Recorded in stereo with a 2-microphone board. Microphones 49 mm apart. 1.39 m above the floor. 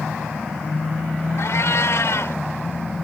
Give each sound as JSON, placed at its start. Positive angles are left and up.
{"t": 1.4, "sound": "a cat meowing", "side_deg": 70}